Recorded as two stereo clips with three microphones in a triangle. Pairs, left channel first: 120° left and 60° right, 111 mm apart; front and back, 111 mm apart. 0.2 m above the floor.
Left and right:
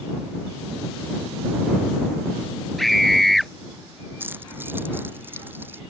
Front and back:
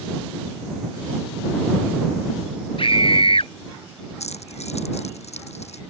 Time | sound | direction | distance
2.8 | a scream | 30° left | ?
4.2 | keys jangling | 10° left | ?